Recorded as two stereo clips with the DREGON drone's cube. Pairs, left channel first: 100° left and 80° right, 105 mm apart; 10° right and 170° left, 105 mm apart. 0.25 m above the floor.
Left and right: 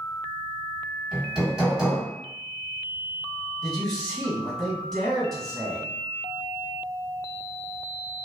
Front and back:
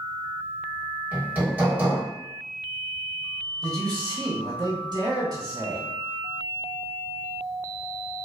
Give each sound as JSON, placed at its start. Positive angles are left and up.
{"t": 1.1, "sound": "hammering", "azimuth_deg": -155, "distance_m": 1.3}
{"t": 3.6, "sound": "a man speaking", "azimuth_deg": 180, "distance_m": 1.5}